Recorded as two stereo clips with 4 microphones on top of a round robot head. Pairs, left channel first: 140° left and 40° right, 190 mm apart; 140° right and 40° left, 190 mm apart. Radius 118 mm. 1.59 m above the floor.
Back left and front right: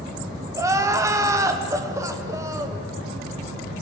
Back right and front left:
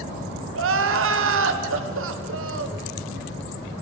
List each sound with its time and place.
0.6 s crying: 35° left, 1.5 m